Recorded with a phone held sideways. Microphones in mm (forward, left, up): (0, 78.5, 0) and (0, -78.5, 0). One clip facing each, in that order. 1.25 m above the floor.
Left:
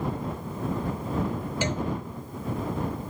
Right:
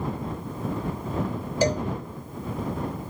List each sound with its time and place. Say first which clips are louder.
1.6 s a cowbell: right 7 dB; 35° right (ahead or behind)